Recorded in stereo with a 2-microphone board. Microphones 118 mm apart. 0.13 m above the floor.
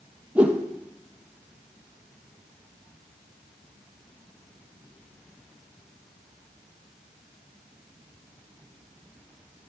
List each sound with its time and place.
0.3 s a whoosh: 10° right (ahead or behind), 1.5 m